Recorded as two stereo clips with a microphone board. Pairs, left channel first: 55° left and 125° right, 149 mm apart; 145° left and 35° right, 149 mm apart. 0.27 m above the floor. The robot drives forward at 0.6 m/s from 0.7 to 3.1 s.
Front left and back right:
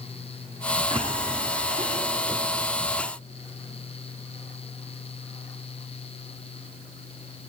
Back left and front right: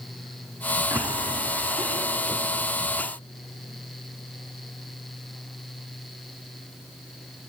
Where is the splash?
90° right, 1.8 m; by 2.5 s 130° right, 2 m.